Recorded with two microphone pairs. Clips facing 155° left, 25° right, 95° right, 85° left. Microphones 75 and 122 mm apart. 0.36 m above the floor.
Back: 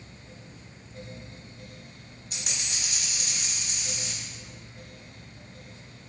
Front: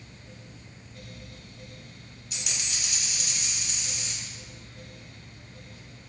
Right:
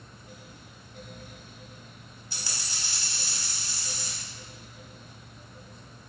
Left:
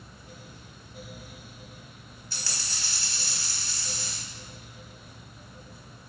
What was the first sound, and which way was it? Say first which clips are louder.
A dropped coin: even, even; 165° right.